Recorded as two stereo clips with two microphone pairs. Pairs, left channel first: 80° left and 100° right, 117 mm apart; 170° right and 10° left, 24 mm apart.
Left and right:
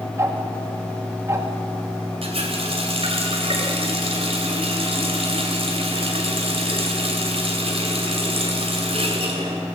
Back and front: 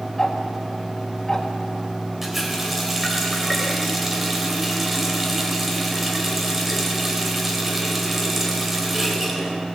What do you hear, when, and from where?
0.2 s ticking: 120° right, 1.3 m
2.2 s a running tap: 65° right, 2.5 m